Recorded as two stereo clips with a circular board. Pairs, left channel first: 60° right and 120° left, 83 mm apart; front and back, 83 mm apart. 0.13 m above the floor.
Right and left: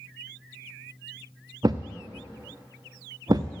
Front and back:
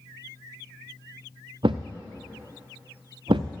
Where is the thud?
160° left, 0.8 m.